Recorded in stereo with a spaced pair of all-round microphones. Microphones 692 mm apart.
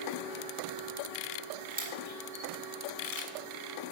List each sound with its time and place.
1.7 s a camera shutter: 40° right (ahead or behind), 1.7 m